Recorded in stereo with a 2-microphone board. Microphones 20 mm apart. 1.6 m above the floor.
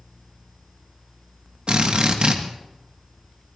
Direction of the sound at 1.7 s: 55° right (ahead or behind).